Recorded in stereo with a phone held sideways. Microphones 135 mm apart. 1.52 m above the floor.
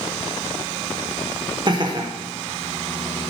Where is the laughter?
35° right (ahead or behind), 1.4 m.